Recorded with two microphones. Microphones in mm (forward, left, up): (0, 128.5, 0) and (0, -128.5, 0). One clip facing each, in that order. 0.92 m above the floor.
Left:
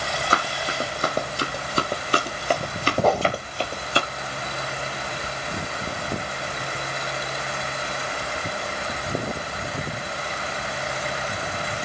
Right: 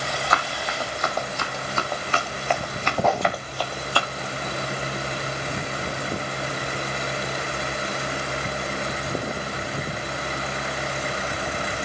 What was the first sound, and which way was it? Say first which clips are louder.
Running footsteps: left 1 dB; 30° left (ahead or behind).